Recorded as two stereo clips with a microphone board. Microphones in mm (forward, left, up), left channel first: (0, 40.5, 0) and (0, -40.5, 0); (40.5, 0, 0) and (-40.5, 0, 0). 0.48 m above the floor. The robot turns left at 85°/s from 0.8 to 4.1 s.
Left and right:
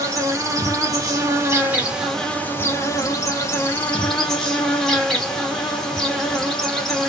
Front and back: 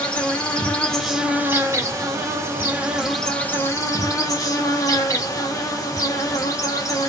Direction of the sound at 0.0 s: 70° right.